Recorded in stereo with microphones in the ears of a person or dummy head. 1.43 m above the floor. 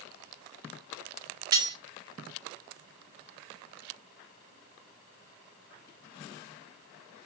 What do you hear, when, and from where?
1.5 s cutlery clinking: 15° right (ahead or behind), 0.5 m